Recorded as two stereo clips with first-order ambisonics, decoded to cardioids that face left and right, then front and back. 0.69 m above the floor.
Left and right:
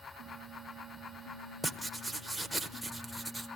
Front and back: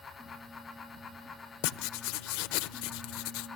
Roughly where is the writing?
Ahead.